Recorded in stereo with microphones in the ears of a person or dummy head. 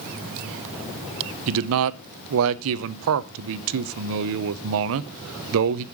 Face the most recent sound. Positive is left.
turn(degrees=-70)  # may be behind; listen again after turning